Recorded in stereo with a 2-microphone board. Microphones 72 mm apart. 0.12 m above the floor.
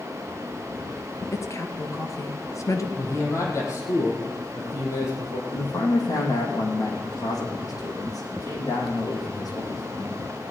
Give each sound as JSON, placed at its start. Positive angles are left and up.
{"t": 1.3, "sound": "a woman speaking", "side_deg": 45, "distance_m": 1.9}
{"t": 3.0, "sound": "a man speaking", "side_deg": 45, "distance_m": 4.0}
{"t": 5.5, "sound": "a man speaking", "side_deg": 60, "distance_m": 4.5}